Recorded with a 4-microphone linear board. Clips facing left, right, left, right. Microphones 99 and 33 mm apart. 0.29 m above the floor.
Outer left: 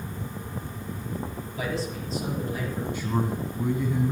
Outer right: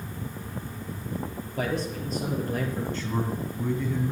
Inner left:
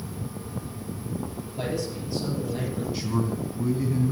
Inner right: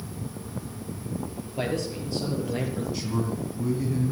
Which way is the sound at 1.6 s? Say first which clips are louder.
Outer right 2 dB, inner right 1 dB; 50° right (ahead or behind).